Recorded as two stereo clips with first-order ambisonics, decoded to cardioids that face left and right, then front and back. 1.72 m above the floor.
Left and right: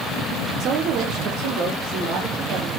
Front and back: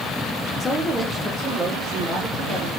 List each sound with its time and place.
0.6 s a woman speaking: 60° right, 0.5 m; by 2.7 s 115° right, 2 m